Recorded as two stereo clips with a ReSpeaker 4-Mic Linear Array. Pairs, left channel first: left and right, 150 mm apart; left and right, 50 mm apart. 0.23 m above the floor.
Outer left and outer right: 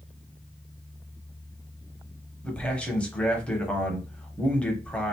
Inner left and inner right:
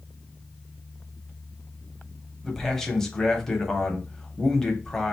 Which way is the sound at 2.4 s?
5° left (ahead or behind).